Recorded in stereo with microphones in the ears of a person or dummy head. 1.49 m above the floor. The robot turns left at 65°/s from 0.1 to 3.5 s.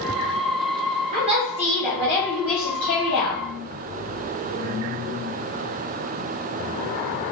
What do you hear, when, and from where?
1.1 s a woman speaking: 135° right, 1.2 m; by 3.4 s 75° left, 1.2 m